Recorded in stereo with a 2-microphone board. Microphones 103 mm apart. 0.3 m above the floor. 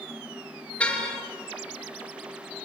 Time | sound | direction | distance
0.8 | a car horn | 10° left (ahead or behind) | 3 m